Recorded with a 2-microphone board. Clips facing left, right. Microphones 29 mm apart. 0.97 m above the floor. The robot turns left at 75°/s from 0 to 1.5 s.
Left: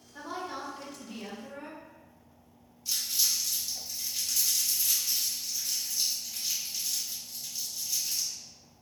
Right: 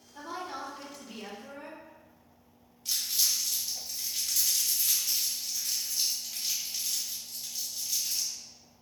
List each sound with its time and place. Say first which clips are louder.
0.1 s a woman speaking: left 1 dB; 15° left (ahead or behind), 0.8 m; by 1.8 s 25° right (ahead or behind), 0.8 m
2.9 s crumpling: even; 80° right, 1.6 m